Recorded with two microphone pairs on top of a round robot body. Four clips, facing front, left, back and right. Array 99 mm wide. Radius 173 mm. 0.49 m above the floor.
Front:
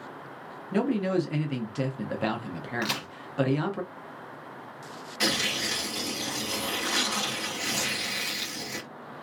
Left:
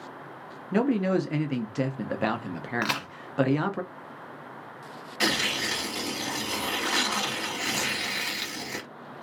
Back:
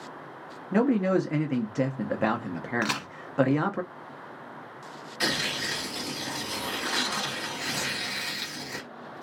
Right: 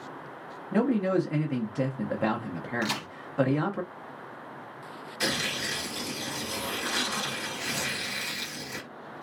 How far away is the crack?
About 1.0 m.